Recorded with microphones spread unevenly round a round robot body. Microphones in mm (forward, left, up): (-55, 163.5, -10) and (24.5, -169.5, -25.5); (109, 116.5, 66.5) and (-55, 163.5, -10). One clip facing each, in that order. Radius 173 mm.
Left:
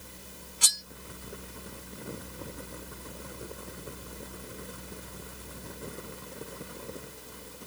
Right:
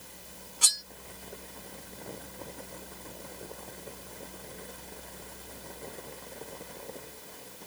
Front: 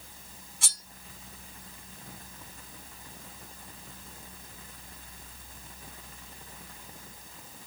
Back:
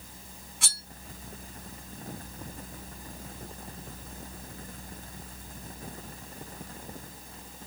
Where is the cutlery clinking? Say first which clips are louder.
Left 1 dB, back 3 dB; 165° left, 0.9 m.